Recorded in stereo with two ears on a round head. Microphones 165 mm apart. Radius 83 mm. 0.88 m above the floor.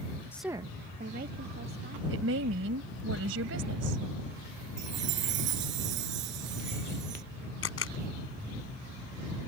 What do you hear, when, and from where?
0.3 s a woman speaking: 15° left (ahead or behind); by 2.0 s 60° right (ahead or behind)
2.1 s a woman speaking: 80° right
4.8 s a chime: 70° right (ahead or behind)
7.6 s a camera shutter: 85° left